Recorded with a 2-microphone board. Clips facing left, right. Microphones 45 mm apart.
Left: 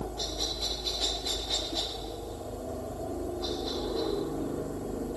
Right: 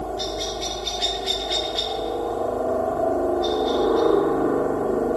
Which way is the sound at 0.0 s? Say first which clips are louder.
Right 8 dB; 60° right (ahead or behind).